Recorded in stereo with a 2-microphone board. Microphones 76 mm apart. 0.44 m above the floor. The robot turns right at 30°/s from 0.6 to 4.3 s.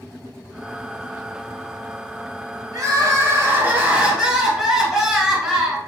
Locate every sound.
2.7 s crying: 55° right, 0.8 m; by 5.8 s 10° right, 0.8 m